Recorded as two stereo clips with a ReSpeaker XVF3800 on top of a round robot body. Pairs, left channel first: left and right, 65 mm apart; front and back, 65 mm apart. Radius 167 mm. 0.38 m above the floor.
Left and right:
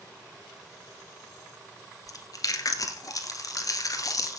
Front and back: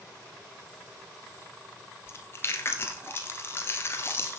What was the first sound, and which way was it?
Chewing, 60° left.